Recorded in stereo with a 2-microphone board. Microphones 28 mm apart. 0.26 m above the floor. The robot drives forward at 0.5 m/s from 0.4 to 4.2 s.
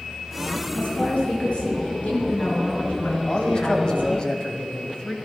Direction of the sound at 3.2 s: 30° left (ahead or behind).